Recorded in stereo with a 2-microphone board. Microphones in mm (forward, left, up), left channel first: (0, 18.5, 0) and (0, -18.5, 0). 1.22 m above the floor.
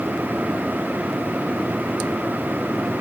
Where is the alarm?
I don't hear an alarm.